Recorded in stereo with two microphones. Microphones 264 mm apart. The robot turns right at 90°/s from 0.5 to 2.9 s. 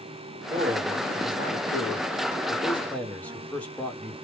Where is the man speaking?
40° right, 1.0 m; by 4.2 s 175° left, 1.0 m.